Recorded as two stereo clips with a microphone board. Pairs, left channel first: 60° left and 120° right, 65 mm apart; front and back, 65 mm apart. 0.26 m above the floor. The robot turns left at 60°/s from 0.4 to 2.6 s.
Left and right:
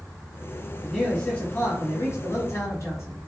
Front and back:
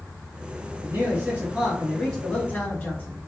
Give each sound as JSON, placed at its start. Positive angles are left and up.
{"t": 0.8, "sound": "a man speaking", "azimuth_deg": 155, "distance_m": 1.7}